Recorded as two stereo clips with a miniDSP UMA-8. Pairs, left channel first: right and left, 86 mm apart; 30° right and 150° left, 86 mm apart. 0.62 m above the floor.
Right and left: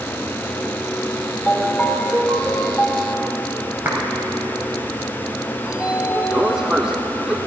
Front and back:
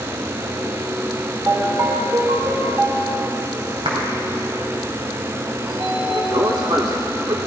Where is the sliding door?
170° left, 1.4 m.